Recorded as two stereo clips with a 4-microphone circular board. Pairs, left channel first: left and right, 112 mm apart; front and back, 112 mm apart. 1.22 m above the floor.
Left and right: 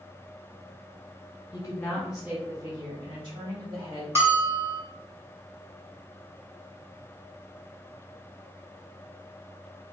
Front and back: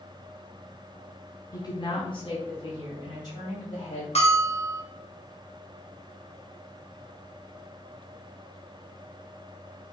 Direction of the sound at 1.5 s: 50° left.